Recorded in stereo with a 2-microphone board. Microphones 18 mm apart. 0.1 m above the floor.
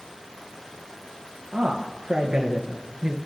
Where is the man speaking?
45° right (ahead or behind), 2.5 m; by 3.2 s 40° right (ahead or behind), 1.7 m.